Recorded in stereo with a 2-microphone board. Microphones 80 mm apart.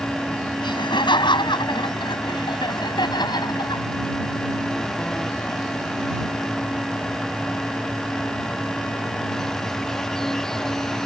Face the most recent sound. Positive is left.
turn(degrees=60)  # may be behind; listen again after turning